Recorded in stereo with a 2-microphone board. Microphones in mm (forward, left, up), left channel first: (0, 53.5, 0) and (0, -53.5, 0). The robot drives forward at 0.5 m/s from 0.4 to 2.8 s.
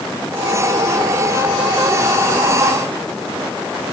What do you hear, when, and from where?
Only background noise.